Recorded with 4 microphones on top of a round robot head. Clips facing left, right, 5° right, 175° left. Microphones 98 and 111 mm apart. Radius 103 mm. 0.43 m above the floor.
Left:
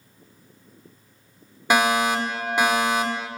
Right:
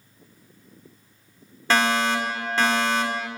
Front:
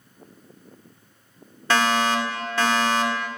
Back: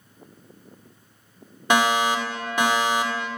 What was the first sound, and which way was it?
A fire alarm, 140° left.